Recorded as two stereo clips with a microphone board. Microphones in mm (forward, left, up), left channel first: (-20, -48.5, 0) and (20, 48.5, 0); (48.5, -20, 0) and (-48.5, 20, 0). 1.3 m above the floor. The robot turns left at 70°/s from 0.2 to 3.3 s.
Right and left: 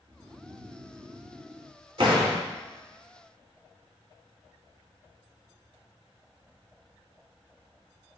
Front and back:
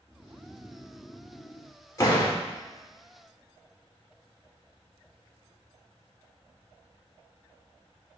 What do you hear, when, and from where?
0.1 s snoring: 105° left, 1.0 m; by 1.8 s 5° right, 1.0 m
2.0 s a door slam: 40° left, 2.5 m; by 2.4 s 10° left, 2.5 m